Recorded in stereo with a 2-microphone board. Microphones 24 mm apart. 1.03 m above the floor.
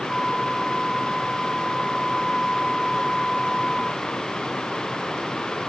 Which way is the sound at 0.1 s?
5° left (ahead or behind).